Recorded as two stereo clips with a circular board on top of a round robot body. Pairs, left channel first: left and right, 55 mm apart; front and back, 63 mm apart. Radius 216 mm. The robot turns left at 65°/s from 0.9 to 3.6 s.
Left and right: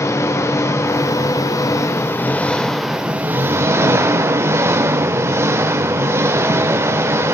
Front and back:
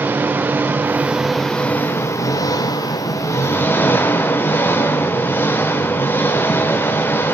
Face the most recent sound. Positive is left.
turn(degrees=-55)